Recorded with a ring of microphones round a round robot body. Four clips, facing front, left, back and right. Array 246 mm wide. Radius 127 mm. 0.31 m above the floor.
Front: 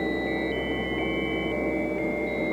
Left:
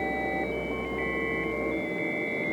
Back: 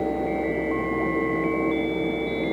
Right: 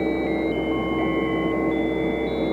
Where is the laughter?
No laughter in this recording.